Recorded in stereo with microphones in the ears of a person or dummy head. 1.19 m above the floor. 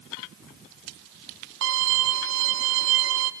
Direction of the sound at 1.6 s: 65° right (ahead or behind).